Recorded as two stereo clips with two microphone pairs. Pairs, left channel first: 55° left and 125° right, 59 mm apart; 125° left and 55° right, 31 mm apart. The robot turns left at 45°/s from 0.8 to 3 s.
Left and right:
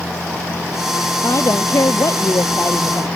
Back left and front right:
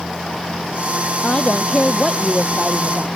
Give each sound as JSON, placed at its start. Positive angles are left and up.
{"t": 1.2, "sound": "a woman speaking", "azimuth_deg": 85}